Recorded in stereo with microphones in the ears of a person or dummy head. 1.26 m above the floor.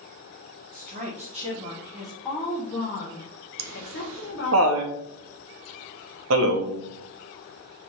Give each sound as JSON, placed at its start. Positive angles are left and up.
{"t": 0.7, "sound": "a woman speaking", "side_deg": -45, "distance_m": 1.4}
{"t": 3.6, "sound": "laughter", "side_deg": -70, "distance_m": 0.9}